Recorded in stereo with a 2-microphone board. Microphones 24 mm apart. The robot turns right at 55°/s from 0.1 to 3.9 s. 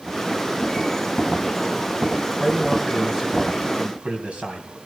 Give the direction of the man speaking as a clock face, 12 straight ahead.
7 o'clock.